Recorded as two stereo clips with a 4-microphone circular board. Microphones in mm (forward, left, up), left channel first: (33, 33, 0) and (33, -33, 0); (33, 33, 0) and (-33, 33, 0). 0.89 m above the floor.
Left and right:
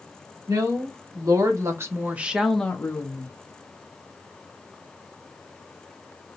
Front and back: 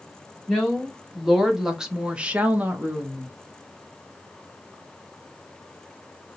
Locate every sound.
0.5 s a woman speaking: 90° right, 1.5 m; by 3.3 s 115° left, 0.8 m